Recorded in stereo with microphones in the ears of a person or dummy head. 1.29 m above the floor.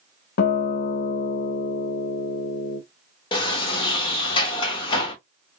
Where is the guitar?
55° left (ahead or behind), 1.1 m.